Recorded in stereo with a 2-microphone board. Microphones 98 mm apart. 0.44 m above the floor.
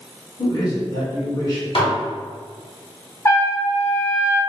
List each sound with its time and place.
0.4 s a man speaking: 40° left (ahead or behind), 1.5 m
1.8 s dishes clattering: 60° left (ahead or behind), 1.0 m
3.2 s a trumpet: 25° left (ahead or behind), 0.7 m